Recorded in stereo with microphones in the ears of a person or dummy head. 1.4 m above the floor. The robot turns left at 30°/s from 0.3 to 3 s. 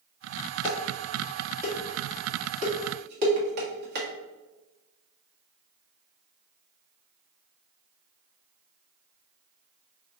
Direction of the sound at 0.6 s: 15° left (ahead or behind).